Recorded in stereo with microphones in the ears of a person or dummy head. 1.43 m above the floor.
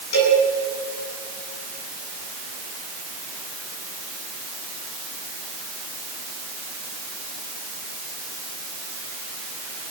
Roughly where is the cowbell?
Left.